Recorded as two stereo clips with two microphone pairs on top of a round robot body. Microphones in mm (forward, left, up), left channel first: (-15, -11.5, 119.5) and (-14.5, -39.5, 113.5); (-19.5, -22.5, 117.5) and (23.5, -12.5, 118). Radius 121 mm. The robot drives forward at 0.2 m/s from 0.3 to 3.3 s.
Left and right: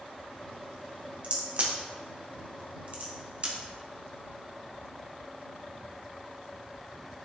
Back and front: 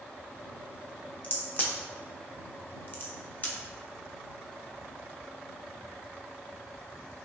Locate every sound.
1.2 s a crack: 115° right, 1.9 m; by 3.5 s 125° right, 2 m